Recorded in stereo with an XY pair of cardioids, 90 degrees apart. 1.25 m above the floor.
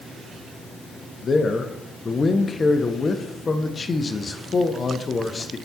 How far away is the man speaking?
About 0.6 m.